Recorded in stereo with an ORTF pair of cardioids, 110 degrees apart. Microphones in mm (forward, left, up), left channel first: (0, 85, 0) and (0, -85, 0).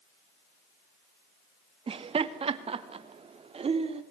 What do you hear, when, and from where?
1.9 s laughter: 35° right, 1.9 m